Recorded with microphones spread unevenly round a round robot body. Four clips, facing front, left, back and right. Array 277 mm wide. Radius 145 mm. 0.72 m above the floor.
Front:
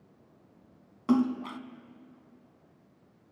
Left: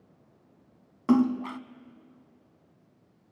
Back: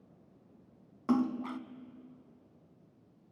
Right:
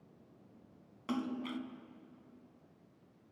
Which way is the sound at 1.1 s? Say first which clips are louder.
Left 14 dB, front 4 dB; 70° left.